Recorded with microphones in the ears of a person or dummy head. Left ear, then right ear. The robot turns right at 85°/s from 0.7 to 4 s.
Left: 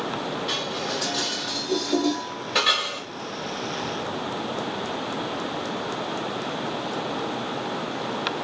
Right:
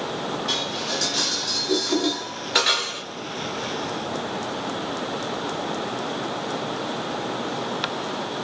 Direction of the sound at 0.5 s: 10° left (ahead or behind).